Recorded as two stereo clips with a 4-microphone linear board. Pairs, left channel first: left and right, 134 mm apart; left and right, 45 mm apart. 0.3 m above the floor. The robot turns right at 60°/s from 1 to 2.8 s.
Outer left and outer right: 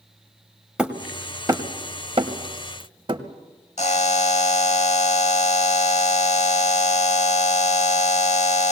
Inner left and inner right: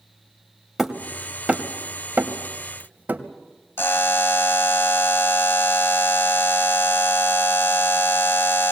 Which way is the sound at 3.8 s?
60° left (ahead or behind).